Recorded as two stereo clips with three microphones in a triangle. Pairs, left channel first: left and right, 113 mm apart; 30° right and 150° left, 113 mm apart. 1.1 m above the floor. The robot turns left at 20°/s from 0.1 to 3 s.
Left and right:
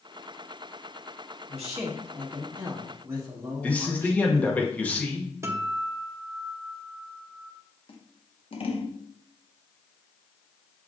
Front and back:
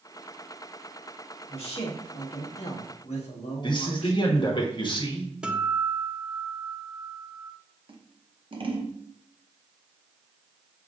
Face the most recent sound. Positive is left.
turn(degrees=115)